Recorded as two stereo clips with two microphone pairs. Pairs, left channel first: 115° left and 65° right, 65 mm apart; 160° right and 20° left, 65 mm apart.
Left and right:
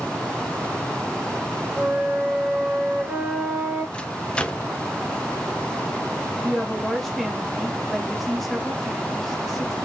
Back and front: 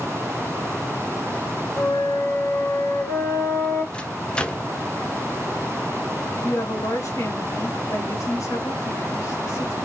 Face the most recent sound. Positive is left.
turn(degrees=-160)